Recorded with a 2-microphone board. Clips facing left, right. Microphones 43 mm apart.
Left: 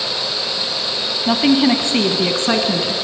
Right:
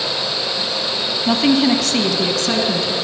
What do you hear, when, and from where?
1.3 s a woman speaking: 5° left (ahead or behind), 1.2 m; by 3.0 s 35° left (ahead or behind), 1.7 m